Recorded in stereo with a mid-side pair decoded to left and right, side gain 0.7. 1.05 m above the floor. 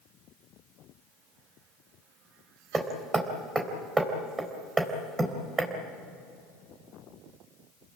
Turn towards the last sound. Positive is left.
turn(degrees=-20)